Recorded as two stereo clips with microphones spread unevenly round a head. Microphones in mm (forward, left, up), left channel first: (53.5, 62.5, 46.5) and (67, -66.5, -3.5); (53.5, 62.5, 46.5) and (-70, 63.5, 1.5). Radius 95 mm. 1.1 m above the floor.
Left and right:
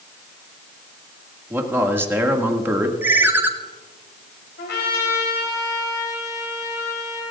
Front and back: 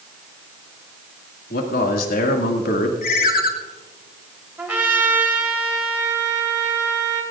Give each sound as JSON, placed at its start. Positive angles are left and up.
{"t": 1.5, "sound": "a man speaking", "azimuth_deg": -10, "distance_m": 2.0}
{"t": 3.0, "sound": "a ringtone", "azimuth_deg": -10, "distance_m": 1.4}
{"t": 4.6, "sound": "a trumpet", "azimuth_deg": 105, "distance_m": 3.5}